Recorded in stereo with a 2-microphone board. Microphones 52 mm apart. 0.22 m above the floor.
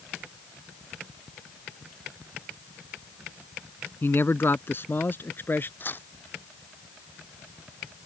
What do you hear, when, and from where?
4.0 s a man speaking: 45° left (ahead or behind); by 5.7 s 40° left (ahead or behind)
5.8 s tearing paper: 40° left (ahead or behind)